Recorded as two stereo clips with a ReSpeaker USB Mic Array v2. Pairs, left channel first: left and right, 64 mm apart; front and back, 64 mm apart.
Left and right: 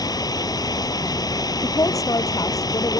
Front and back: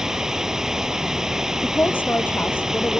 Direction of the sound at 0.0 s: 100° left.